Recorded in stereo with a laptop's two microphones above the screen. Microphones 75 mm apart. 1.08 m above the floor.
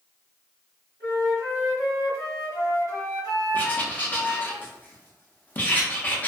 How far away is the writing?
About 0.5 m.